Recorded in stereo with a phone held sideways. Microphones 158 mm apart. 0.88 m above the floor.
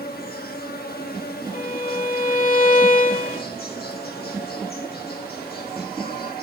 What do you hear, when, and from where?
0.0 s an insect: 80° left, 1.1 m
1.5 s a violin: 60° left (ahead or behind), 1.1 m